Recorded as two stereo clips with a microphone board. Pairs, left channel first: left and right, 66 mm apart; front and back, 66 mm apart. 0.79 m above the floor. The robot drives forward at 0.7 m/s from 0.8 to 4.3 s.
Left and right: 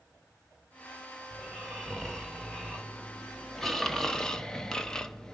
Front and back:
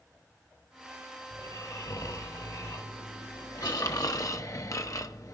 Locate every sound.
1.3 s snoring: 5° left, 2.5 m; by 5.3 s 15° left, 0.7 m